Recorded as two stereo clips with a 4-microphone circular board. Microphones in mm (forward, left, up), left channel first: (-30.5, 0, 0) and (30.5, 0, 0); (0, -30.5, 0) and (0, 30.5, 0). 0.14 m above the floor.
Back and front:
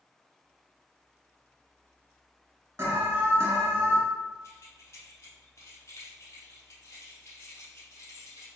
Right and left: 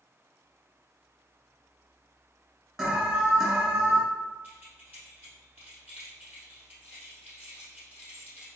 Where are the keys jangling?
150° left, 1.9 m.